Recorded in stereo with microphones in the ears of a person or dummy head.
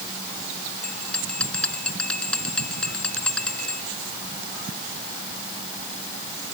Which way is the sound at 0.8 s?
5° left (ahead or behind).